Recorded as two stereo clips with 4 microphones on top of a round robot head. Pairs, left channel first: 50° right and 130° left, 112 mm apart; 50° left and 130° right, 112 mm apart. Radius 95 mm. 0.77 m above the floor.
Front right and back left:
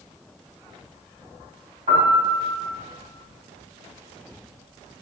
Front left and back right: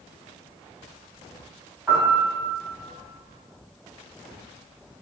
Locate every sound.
1.9 s a piano: 155° left, 4 m